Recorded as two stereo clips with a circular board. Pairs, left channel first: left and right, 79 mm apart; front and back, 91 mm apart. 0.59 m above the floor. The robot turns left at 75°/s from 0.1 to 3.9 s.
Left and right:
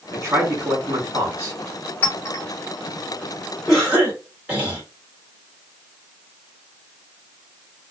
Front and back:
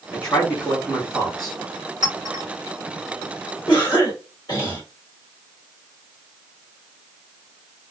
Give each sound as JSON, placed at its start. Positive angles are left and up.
{"t": 0.1, "sound": "a man speaking", "azimuth_deg": -65, "distance_m": 1.5}
{"t": 2.0, "sound": "a clink", "azimuth_deg": 155, "distance_m": 2.0}
{"t": 3.7, "sound": "a cough", "azimuth_deg": -5, "distance_m": 1.9}